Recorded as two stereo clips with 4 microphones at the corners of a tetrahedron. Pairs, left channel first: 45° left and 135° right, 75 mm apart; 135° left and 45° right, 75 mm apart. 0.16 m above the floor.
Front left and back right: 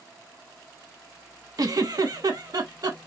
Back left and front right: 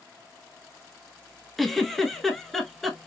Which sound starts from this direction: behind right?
A giggle, at 1.6 s.